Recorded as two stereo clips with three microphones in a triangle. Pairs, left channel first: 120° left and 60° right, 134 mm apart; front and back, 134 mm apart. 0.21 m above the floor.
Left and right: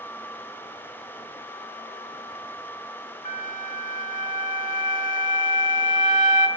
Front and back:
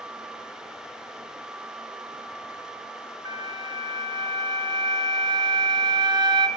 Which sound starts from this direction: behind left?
A flute, at 3.2 s.